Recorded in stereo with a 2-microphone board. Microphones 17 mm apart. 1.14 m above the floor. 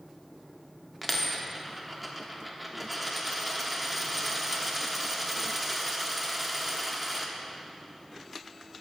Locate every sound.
1.0 s a dropped coin: 10° right (ahead or behind), 0.9 m